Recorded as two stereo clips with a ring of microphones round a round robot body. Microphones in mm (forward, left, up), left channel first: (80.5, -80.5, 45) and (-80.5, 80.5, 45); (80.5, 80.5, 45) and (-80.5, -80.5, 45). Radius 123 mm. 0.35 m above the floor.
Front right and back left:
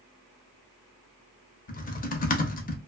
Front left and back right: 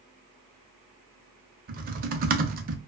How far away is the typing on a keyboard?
About 0.6 m.